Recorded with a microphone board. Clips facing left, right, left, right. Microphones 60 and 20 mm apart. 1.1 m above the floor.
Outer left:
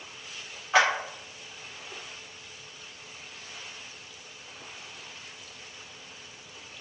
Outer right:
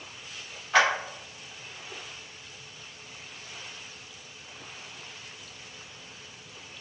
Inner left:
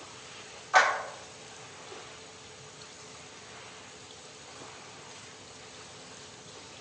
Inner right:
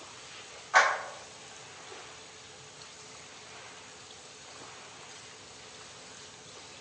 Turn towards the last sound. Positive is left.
turn(degrees=10)  # may be behind; listen again after turning